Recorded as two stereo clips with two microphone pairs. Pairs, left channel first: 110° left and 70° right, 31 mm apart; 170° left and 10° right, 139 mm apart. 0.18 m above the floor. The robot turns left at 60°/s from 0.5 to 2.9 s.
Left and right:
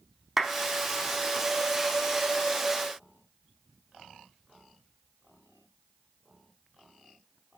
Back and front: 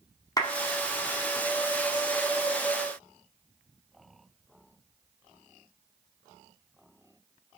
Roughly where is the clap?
Behind right.